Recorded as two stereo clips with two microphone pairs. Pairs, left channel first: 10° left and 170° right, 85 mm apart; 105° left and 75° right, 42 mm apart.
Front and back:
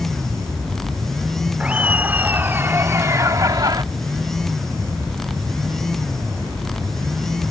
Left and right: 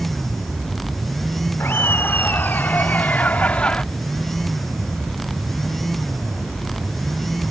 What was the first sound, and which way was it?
Laughter, 115° left.